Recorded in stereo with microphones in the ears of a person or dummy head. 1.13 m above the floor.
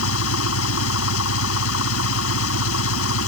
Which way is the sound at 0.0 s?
75° left (ahead or behind).